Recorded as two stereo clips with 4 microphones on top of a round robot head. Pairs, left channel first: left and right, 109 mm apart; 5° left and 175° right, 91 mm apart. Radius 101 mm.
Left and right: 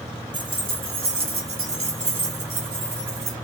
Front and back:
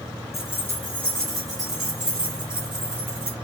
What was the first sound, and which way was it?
Keys jangling, 55° right.